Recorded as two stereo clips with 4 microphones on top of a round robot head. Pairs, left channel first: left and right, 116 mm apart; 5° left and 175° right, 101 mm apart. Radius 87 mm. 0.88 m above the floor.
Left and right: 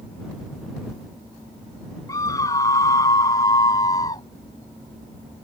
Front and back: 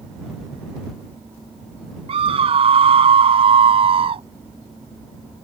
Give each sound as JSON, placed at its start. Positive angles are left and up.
{"t": 2.1, "sound": "a scream", "azimuth_deg": 160}